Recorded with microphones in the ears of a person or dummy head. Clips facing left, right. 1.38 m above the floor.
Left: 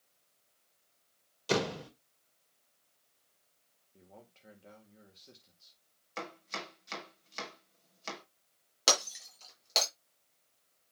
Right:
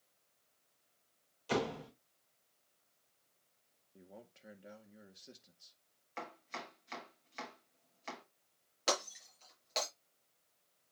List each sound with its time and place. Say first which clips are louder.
1.5 s a door slam: left 4 dB; 60° left (ahead or behind), 4 m
3.9 s a man speaking: right 1 dB; 15° right (ahead or behind), 1.7 m
6.2 s chopping: left 4 dB; 55° left (ahead or behind), 5.5 m
8.9 s breaking glass: left 3 dB; 70° left (ahead or behind), 5.5 m